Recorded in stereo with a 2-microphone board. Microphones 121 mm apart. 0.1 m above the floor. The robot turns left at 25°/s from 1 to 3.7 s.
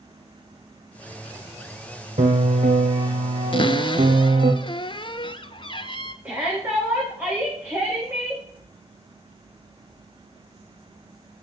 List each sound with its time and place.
2.2 s a piano: 75° right, 1.6 m; by 4.5 s 115° right, 1.6 m
3.5 s a cupboard door: 45° left (ahead or behind), 0.5 m
6.2 s a shout: 10° right (ahead or behind), 6.5 m